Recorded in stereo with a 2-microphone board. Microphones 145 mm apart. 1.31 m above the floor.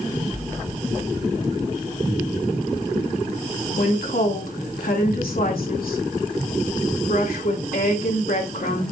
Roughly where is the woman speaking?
Left.